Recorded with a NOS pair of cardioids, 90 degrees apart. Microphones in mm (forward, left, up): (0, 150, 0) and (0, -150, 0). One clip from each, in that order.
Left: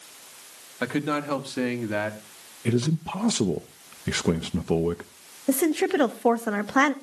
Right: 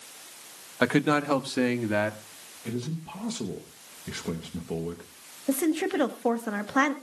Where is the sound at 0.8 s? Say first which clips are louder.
Right 3 dB; 30° right, 1.2 m; by 2.2 s straight ahead, 1.9 m.